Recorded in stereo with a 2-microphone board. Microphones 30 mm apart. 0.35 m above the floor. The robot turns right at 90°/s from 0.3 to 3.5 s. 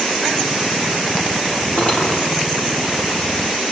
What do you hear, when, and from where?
1.8 s cutlery clinking: 125° left, 6.5 m; by 2.1 s 155° left, 6.5 m